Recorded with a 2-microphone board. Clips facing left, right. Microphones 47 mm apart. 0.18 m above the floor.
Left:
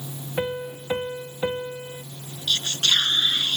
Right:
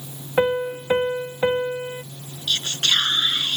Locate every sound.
0.4 s a piano: 35° right (ahead or behind)
2.5 s whispering: 30° right (ahead or behind)